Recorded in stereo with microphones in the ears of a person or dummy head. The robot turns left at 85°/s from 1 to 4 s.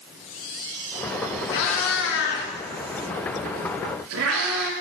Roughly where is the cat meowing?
Left.